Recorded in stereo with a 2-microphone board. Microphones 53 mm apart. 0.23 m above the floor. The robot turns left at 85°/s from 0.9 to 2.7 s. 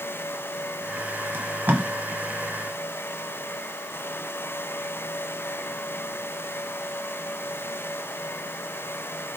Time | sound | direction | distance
1.3 | tape being pulled | 45° right (ahead or behind) | 0.7 m